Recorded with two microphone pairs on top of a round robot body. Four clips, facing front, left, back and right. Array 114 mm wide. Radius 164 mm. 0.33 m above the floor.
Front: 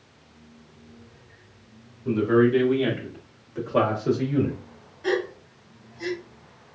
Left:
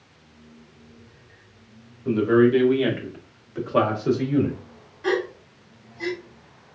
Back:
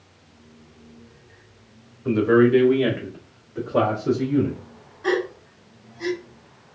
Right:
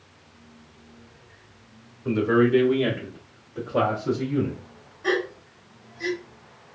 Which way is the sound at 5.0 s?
95° left.